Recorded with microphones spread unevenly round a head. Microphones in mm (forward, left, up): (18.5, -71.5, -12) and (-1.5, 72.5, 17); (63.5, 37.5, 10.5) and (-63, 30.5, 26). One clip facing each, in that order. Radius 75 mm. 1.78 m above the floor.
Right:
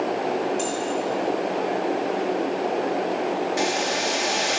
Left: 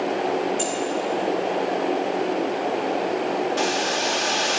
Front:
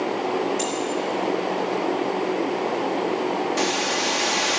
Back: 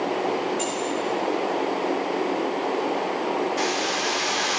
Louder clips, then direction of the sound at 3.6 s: Left 1 dB, front 1 dB; straight ahead.